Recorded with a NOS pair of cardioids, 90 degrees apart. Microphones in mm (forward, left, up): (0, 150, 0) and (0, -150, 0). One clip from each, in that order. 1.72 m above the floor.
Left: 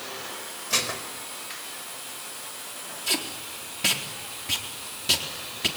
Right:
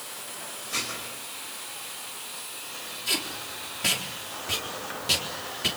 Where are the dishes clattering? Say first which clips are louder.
Left 5 dB; 65° left, 5 m.